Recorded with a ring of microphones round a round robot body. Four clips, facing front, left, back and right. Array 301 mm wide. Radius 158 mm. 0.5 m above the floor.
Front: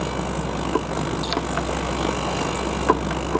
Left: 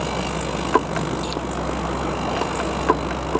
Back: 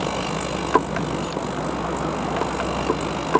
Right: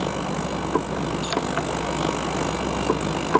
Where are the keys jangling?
20° right.